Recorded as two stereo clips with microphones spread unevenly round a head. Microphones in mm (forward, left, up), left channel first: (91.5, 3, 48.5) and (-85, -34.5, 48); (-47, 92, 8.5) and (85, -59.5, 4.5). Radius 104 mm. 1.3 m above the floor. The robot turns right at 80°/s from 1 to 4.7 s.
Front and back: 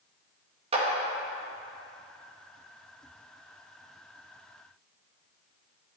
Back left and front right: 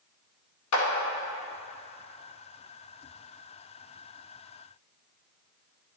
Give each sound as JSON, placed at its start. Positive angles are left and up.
{"t": 0.7, "sound": "a clap", "azimuth_deg": 135, "distance_m": 2.0}